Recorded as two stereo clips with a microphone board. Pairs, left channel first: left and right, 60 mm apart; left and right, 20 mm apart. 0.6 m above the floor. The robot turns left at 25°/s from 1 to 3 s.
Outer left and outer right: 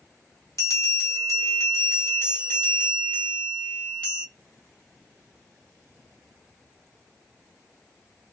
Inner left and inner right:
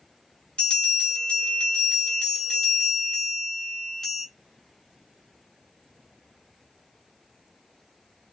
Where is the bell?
70° left, 1.7 m; by 4.2 s 20° left, 1.7 m.